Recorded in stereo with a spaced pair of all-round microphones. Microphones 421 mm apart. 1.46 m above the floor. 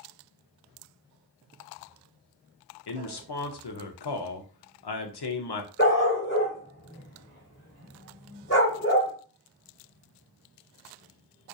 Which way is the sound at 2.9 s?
65° left (ahead or behind).